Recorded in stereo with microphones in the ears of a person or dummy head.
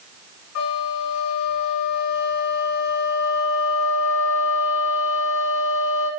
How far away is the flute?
About 1.8 m.